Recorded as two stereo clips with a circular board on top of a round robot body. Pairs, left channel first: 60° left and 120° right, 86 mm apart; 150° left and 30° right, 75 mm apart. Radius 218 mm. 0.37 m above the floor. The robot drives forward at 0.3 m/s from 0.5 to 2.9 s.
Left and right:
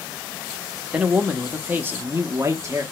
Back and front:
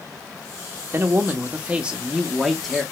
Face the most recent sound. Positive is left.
turn(degrees=-130)